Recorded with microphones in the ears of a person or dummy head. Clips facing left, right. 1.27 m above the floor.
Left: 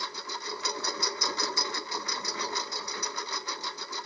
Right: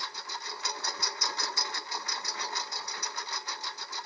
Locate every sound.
0.0 s a lawn mower: 70° left (ahead or behind)